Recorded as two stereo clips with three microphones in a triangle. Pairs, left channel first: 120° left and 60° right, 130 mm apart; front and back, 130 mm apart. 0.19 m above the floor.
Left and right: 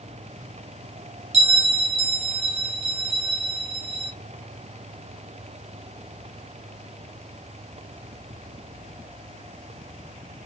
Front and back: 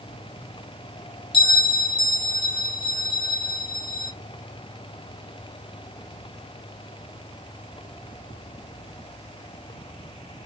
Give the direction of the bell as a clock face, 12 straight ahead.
1 o'clock.